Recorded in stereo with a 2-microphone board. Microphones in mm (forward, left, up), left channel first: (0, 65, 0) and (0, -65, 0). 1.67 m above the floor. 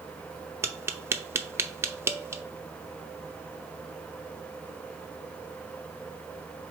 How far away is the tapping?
About 0.7 m.